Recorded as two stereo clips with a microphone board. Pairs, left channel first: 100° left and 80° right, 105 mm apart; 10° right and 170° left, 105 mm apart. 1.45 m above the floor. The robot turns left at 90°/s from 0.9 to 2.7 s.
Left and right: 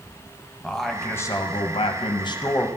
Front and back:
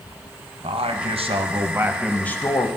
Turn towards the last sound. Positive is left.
turn(degrees=25)